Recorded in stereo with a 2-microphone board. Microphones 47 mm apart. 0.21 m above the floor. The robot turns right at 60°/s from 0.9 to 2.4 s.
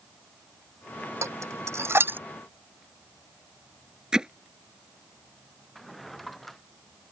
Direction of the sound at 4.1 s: 15° right (ahead or behind).